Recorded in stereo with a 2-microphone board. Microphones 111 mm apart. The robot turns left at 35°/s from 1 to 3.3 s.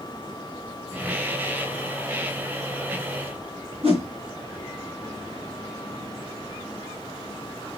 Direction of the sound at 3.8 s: 65° right (ahead or behind).